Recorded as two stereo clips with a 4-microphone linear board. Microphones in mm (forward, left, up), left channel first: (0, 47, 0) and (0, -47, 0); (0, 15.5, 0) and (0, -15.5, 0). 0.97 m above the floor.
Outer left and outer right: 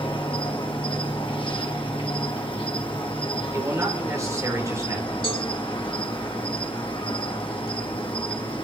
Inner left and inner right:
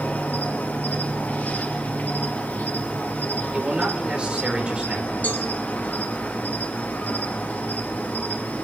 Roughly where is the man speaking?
Right.